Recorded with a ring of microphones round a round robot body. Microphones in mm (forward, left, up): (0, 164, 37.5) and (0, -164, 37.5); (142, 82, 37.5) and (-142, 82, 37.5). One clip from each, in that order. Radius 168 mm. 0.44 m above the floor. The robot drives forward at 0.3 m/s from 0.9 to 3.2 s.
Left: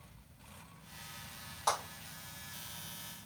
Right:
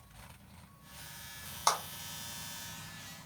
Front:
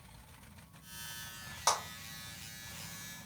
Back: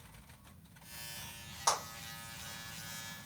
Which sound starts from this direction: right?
A clap, at 1.7 s.